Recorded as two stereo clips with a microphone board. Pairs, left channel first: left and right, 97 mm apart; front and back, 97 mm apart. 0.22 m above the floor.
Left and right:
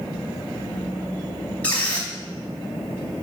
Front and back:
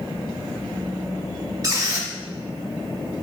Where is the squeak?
155° left, 0.7 m.